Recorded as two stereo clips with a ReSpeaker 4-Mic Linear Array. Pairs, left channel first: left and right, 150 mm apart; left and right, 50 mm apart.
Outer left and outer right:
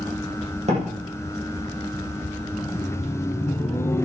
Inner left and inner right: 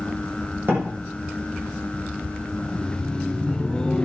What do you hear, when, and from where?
0.7 s a door slam: 45° right (ahead or behind), 7 m
2.6 s laughter: 15° left (ahead or behind), 1.1 m